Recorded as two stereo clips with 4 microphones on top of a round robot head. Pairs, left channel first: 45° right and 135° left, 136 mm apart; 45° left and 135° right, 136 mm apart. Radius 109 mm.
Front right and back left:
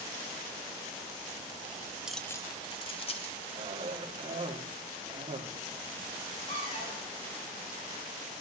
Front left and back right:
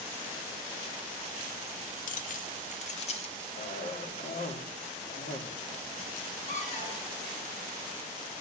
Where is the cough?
85° left, 2.5 m.